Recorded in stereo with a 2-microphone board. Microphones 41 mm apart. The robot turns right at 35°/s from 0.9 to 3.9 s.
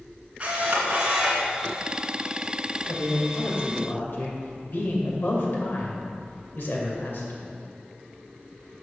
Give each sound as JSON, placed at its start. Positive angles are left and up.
{"t": 0.4, "sound": "a camera shutter", "side_deg": -30, "distance_m": 2.0}
{"t": 2.9, "sound": "a man speaking", "azimuth_deg": 75, "distance_m": 2.0}